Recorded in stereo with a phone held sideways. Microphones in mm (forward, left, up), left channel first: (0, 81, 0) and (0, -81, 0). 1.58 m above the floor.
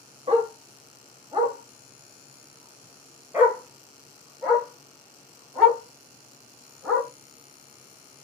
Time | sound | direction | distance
0.3 | a dog barking | 40° right (ahead or behind) | 1.1 m